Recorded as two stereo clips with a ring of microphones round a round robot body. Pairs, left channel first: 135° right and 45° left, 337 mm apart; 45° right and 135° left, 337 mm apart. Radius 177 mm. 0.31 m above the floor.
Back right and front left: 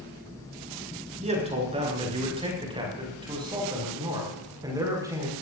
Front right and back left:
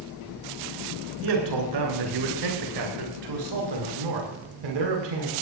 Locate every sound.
1.2 s a man speaking: 115° left, 5.5 m; by 5.3 s 125° left, 7 m